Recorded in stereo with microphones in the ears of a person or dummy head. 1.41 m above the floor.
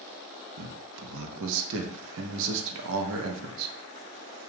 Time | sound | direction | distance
0.6 | a man speaking | 65° right (ahead or behind) | 0.5 m